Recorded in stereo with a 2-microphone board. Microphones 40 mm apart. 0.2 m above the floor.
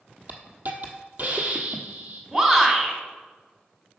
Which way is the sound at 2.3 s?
20° right (ahead or behind).